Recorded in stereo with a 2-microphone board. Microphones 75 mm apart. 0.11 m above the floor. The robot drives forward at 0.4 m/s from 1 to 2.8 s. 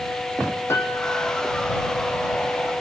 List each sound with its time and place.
0.7 s a piano: 35° left (ahead or behind), 3 m